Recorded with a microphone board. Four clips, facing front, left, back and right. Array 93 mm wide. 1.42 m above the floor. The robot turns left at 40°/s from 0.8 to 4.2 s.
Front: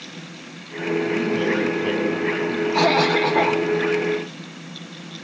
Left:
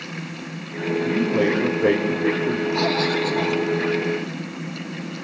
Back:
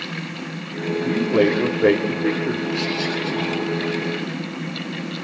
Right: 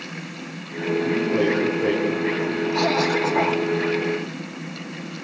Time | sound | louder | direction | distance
1.0 | a man speaking | left 1 dB, back 6 dB | 155° right | 4.5 m
2.7 | a cough | right 1 dB, front 7 dB | straight ahead | 1.4 m